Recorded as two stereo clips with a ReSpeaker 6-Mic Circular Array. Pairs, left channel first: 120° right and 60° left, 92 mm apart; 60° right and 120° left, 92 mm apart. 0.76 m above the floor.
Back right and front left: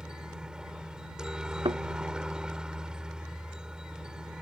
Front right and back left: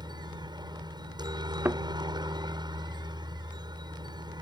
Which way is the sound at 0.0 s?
140° left.